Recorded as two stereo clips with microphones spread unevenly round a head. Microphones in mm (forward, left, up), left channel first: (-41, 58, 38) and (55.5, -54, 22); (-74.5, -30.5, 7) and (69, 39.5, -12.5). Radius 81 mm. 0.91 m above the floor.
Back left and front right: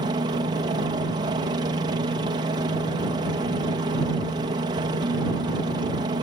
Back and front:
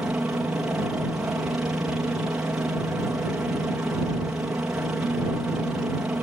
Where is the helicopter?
45° right.